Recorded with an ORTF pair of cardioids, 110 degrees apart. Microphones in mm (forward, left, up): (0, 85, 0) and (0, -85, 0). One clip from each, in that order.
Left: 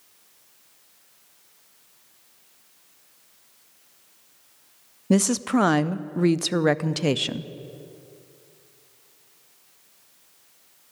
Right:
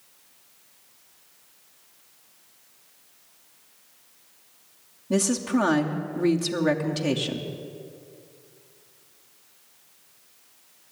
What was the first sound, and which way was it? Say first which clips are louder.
A woman speaking: left 2 dB; 50° left.